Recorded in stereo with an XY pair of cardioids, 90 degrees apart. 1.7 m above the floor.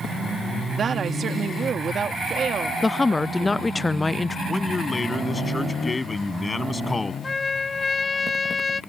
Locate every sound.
0.8 s a woman speaking: 55° right
2.8 s a woman speaking: 25° left
4.5 s a man speaking: 25° left
7.2 s a trumpet: 35° left